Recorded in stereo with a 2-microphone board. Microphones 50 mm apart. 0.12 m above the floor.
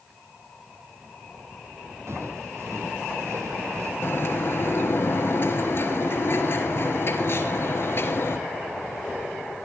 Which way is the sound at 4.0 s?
50° left (ahead or behind).